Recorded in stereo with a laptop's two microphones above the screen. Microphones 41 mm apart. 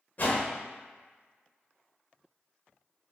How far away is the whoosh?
About 0.5 m.